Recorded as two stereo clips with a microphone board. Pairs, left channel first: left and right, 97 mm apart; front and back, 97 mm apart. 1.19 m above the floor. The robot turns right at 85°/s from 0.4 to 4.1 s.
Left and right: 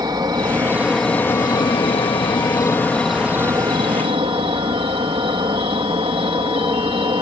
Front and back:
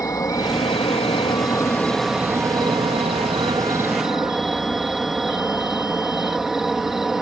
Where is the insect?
50° right; by 7.2 s 95° right.